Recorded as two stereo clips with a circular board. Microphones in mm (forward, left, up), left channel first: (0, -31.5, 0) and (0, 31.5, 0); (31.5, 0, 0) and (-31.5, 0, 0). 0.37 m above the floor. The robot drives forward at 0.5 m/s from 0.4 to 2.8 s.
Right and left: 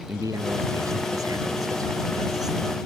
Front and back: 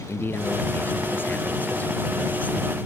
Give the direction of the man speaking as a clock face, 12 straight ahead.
10 o'clock.